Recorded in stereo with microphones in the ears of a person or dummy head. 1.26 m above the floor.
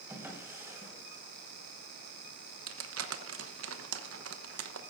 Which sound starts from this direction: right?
Crumpling, at 2.7 s.